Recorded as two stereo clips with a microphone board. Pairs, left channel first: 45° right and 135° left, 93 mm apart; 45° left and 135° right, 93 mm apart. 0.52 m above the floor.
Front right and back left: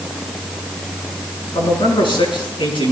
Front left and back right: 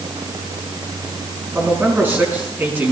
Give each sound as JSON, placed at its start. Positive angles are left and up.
{"t": 1.6, "sound": "a man speaking", "azimuth_deg": -70, "distance_m": 7.0}